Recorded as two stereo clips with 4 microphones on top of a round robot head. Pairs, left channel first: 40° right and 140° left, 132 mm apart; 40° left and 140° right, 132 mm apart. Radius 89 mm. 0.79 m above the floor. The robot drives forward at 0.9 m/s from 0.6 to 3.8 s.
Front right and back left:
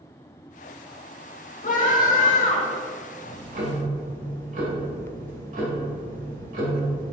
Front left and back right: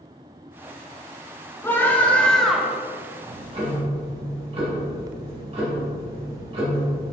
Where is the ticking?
170° left, 2 m.